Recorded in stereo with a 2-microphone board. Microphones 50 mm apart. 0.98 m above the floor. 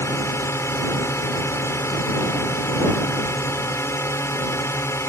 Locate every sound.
0.0 s a drone: 65° left (ahead or behind)